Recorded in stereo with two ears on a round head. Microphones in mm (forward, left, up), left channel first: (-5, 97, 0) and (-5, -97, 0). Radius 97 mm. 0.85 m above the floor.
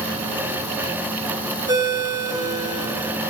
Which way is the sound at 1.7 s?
20° right (ahead or behind).